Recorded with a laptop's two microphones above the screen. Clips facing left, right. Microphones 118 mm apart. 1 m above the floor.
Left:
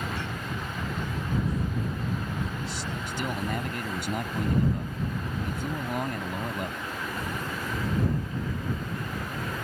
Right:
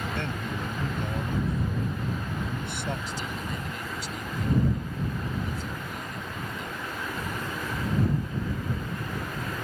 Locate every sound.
0.1 s a man speaking: 70° right (ahead or behind)
3.1 s a man speaking: 65° left (ahead or behind)